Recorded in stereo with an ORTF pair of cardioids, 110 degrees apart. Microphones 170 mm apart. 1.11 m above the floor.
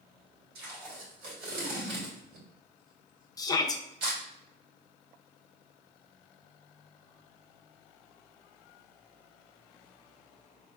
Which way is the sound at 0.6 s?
65° right.